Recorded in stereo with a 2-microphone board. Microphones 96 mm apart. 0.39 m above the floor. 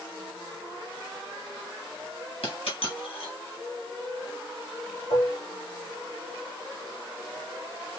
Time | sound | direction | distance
2.4 | a dropped coin | 80° left | 3 m
5.1 | dishes clattering | 75° left (ahead or behind) | 2.5 m